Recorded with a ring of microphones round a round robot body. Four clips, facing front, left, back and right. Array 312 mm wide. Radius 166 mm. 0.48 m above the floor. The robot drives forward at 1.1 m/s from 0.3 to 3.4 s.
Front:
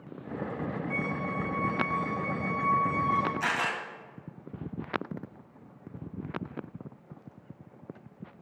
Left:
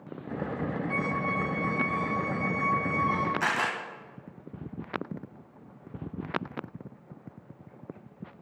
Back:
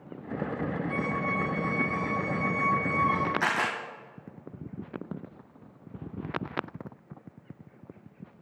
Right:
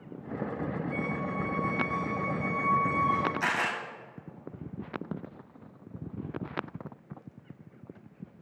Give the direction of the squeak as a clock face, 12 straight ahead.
9 o'clock.